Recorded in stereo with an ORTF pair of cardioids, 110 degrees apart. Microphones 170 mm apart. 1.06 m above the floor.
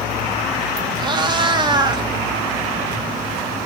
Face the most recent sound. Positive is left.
turn(degrees=-25)